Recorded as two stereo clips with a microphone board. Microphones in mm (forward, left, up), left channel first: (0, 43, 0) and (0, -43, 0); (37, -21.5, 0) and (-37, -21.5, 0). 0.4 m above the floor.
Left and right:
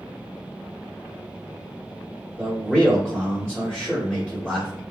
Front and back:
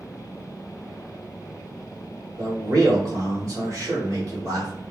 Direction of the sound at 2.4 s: 160° right.